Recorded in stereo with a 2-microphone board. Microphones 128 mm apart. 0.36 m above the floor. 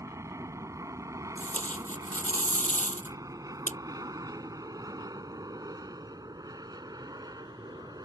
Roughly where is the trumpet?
I don't hear a trumpet.